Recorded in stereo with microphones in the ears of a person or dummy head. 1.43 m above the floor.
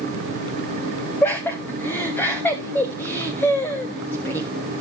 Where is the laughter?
15° left (ahead or behind), 1.1 m.